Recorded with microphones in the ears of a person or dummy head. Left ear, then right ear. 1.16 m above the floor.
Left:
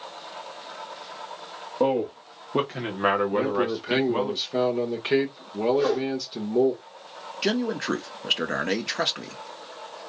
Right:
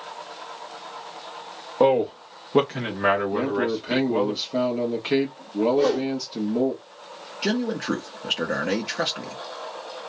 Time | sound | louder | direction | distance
1.8 | a man speaking | right 5 dB | 45° right (ahead or behind) | 0.7 m
3.3 | a man speaking | even | 5° left (ahead or behind) | 1.1 m
5.7 | a whoosh | right 1 dB | centre (ahead or behind) | 1.3 m
7.4 | a man speaking | even | 15° left (ahead or behind) | 0.6 m